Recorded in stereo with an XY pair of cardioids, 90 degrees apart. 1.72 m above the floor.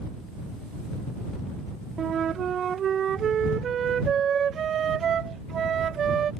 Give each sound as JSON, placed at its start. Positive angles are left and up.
{"t": 2.0, "sound": "a flute", "azimuth_deg": -60}